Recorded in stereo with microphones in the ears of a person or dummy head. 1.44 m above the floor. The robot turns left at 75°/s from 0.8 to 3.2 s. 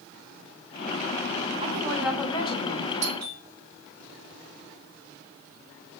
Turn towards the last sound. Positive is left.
turn(degrees=-30)  # may be behind; listen again after turning